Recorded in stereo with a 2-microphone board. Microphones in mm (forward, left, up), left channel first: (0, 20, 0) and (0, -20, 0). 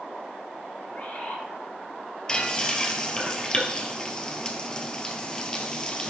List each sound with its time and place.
0.9 s a bird: 40° left (ahead or behind), 1.8 m
2.3 s frying: 15° left (ahead or behind), 1.7 m